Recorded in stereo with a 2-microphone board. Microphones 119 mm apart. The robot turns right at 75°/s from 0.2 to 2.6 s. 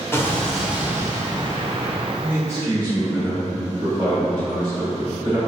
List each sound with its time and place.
0.1 s an explosion: 150° left, 0.7 m; by 2.1 s 65° right, 0.7 m
2.2 s a man speaking: 5° right (ahead or behind), 1.8 m; by 5.4 s 30° right (ahead or behind), 1.8 m